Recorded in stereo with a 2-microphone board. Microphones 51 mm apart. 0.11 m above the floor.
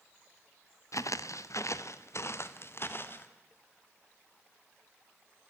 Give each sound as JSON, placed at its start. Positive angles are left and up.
{"t": 0.9, "sound": "footsteps", "side_deg": 85, "distance_m": 1.1}